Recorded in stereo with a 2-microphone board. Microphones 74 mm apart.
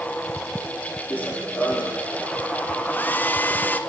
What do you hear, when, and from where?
1.1 s running footsteps: 20° left (ahead or behind), 2.5 m
2.9 s a hair dryer: 25° left (ahead or behind), 0.9 m